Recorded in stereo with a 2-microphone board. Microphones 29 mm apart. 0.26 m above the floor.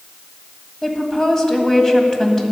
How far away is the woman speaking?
About 1.7 m.